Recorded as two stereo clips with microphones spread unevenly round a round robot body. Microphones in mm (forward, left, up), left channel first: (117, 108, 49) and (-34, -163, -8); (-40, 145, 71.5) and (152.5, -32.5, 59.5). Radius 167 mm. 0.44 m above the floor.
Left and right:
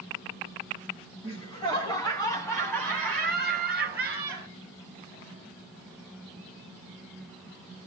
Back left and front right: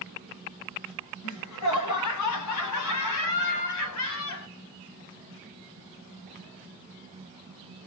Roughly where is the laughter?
Behind left.